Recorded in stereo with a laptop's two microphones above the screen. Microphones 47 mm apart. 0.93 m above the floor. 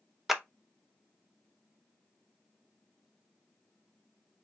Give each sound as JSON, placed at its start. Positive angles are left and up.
{"t": 0.3, "sound": "a clap", "side_deg": -5, "distance_m": 0.7}